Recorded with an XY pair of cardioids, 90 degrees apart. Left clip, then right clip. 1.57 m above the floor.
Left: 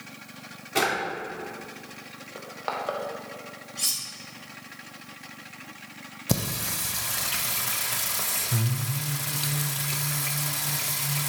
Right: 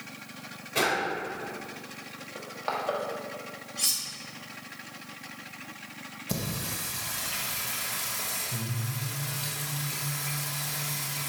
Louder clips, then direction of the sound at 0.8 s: Left 2 dB; 65° left.